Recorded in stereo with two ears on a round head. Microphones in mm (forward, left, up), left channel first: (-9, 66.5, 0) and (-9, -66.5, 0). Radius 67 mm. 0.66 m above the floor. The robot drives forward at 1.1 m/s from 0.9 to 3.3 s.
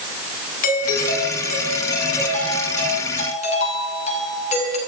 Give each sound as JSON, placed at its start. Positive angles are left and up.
{"t": 0.6, "sound": "a doorbell", "side_deg": 60, "distance_m": 7.0}